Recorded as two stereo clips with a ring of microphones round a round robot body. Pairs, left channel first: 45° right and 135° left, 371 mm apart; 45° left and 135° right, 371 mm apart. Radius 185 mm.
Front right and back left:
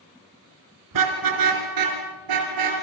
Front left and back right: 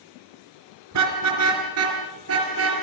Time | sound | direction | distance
0.9 | a car horn | 175° left | 4 m